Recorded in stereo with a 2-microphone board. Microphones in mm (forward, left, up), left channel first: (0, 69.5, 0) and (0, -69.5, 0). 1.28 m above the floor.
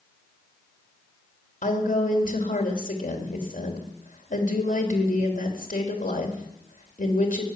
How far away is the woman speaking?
About 3 m.